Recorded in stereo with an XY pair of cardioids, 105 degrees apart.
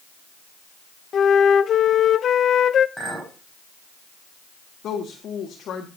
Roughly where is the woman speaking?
Ahead left.